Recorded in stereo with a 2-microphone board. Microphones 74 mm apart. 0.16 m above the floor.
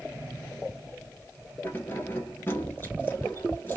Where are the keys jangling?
30° left (ahead or behind), 1.4 m.